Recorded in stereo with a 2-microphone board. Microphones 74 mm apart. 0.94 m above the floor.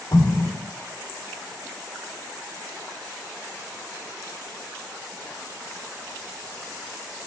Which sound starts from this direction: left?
An explosion, at 0.1 s.